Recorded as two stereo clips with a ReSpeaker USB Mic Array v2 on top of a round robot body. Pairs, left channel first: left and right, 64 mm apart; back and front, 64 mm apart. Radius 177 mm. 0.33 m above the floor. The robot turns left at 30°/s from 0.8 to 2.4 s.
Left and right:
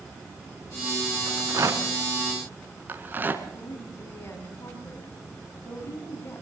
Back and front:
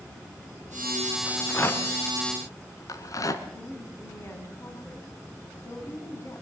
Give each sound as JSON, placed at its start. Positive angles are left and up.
{"t": 1.3, "sound": "a rattle", "azimuth_deg": -115, "distance_m": 1.6}
{"t": 3.5, "sound": "a woman speaking", "azimuth_deg": 135, "distance_m": 4.0}